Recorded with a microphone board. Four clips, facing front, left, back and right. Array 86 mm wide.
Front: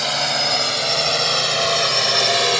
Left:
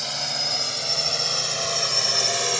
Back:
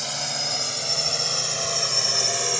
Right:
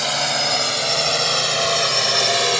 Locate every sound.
0.0 s a drone: 45° right; by 2.6 s 35° right